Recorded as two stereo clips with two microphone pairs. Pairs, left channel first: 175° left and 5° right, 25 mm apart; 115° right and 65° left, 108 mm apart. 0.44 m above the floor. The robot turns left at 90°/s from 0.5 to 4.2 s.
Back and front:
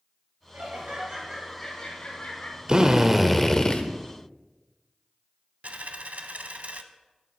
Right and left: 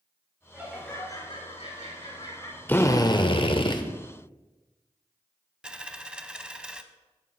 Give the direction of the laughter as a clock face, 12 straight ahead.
12 o'clock.